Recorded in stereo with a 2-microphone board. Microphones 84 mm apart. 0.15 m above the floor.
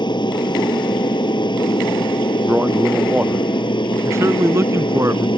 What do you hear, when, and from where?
0.0 s an aircraft: 60° left (ahead or behind); by 5.4 s 65° left (ahead or behind)
2.5 s a man speaking: 15° right (ahead or behind)
4.0 s a man speaking: 35° right (ahead or behind)